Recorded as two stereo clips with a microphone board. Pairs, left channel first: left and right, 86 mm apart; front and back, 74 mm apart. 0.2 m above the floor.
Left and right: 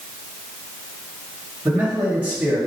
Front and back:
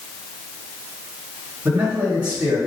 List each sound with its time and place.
1.6 s a man speaking: 135° right, 1.2 m